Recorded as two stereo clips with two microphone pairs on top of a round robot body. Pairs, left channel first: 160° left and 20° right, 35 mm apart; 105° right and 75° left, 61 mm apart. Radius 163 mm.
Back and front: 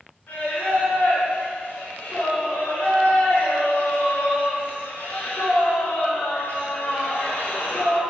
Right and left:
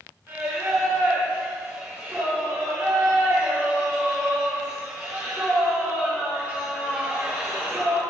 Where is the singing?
140° left, 4 m.